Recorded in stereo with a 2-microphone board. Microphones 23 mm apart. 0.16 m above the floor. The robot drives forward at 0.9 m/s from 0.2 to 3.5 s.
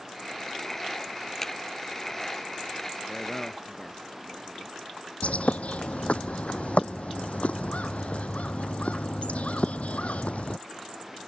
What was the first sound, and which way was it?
A finger snap, 20° left (ahead or behind).